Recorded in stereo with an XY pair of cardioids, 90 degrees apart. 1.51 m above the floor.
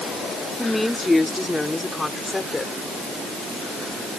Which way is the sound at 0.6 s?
10° left.